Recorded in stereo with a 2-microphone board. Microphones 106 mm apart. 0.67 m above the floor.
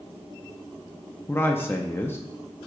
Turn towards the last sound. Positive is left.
turn(degrees=20)  # may be behind; listen again after turning